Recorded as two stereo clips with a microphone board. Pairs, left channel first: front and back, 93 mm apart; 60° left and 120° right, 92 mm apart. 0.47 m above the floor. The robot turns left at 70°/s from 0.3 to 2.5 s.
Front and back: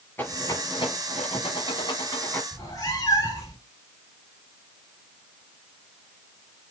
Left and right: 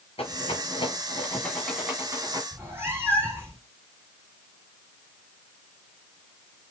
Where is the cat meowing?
55° right, 3 m.